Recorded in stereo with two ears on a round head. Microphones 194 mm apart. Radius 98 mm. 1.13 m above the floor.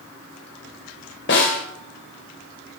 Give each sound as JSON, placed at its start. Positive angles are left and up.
{"t": 1.3, "sound": "a snare drum", "side_deg": 50, "distance_m": 3.0}